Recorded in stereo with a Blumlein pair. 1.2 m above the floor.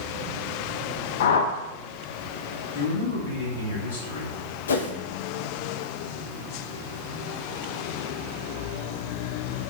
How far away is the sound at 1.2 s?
About 0.5 m.